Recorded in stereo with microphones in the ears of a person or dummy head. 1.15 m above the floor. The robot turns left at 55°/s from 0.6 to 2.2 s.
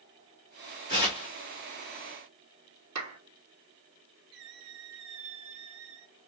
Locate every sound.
0.9 s tearing paper: 30° right (ahead or behind), 1.9 m; by 1.3 s 5° right (ahead or behind), 1.9 m
3.0 s a clap: 80° right, 2.5 m
4.3 s a squeak: 70° right (ahead or behind), 3 m